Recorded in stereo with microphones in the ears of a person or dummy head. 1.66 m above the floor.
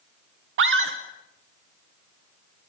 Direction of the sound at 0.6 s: 75° right (ahead or behind).